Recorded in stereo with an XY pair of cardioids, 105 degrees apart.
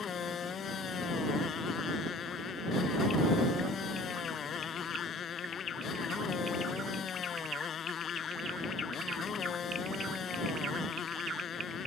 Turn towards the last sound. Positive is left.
turn(degrees=50)